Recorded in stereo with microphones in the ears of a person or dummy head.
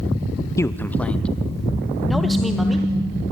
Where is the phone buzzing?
35° left (ahead or behind), 5.5 m.